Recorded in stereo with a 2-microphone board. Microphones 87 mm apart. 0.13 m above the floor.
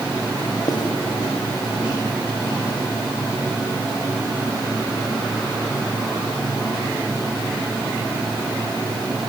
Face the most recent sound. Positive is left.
turn(degrees=50)  # may be behind; listen again after turning